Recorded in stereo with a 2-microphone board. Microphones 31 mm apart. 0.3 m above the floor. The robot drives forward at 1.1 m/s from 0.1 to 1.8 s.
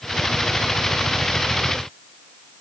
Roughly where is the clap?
I don't hear a clap.